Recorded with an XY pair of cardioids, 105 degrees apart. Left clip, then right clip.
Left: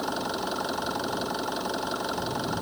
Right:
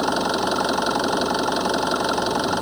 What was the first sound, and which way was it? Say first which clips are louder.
An engine running: right 9 dB; 55° right.